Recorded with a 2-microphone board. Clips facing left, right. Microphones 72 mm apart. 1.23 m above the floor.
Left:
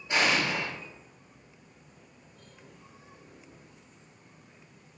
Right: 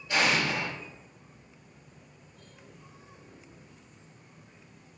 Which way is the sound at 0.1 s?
25° left (ahead or behind).